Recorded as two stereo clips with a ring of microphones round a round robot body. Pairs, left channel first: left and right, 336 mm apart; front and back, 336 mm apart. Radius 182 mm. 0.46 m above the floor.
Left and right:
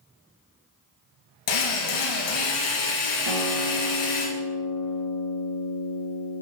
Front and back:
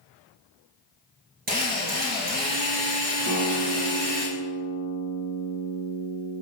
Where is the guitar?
120° right, 3 m.